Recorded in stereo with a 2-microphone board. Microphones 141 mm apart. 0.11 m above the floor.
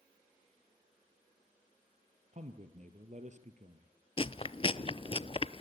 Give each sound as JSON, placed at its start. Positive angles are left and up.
{"t": 2.3, "sound": "a man speaking", "side_deg": -50, "distance_m": 2.5}
{"t": 4.2, "sound": "chewing", "side_deg": 40, "distance_m": 0.5}